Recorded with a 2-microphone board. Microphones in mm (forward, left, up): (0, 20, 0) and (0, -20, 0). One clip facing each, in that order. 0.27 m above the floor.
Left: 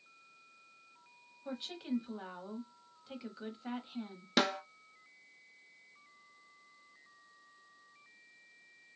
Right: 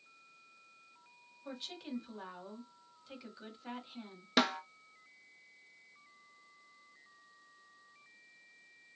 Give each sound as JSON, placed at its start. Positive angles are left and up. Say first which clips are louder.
{"t": 1.4, "sound": "a woman speaking", "louder": "left 5 dB", "side_deg": 10, "distance_m": 1.2}
{"t": 4.4, "sound": "a snare drum", "louder": "even", "side_deg": -5, "distance_m": 0.5}